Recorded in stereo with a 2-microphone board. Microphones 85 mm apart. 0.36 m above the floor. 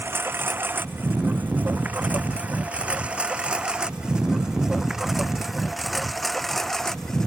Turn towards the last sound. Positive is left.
turn(degrees=5)  # may be behind; listen again after turning